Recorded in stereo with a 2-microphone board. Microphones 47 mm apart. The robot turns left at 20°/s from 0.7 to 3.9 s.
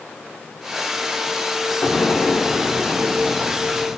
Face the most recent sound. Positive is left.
turn(degrees=0)  # may be behind; listen again after turning